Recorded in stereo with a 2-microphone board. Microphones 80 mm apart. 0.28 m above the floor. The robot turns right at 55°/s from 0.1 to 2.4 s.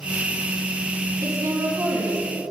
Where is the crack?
I don't hear a crack.